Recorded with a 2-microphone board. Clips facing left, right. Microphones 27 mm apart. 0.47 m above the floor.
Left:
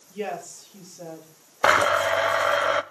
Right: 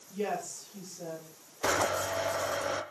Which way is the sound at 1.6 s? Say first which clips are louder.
Left 10 dB; 65° left (ahead or behind).